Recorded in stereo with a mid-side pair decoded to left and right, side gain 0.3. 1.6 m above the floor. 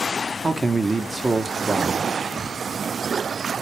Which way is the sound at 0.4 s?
25° right.